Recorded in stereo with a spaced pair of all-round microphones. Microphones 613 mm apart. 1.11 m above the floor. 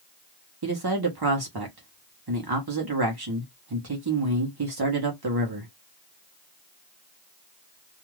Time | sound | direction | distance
0.6 | a man speaking | 40° right (ahead or behind) | 0.9 m